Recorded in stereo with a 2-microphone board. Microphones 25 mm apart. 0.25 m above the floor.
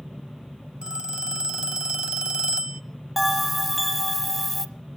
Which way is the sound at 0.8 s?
40° right (ahead or behind).